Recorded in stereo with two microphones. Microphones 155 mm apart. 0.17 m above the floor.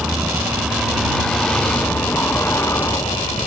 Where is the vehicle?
5° right (ahead or behind); by 3.5 s 25° left (ahead or behind).